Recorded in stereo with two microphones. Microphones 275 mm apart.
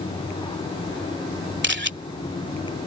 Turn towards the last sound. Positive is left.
turn(degrees=-40)  # may be behind; listen again after turning